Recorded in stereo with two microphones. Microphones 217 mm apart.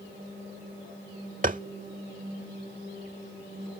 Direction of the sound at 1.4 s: 40° right (ahead or behind).